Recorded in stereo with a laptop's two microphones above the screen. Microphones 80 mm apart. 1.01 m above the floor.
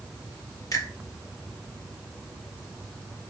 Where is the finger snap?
45° left (ahead or behind), 1.5 m.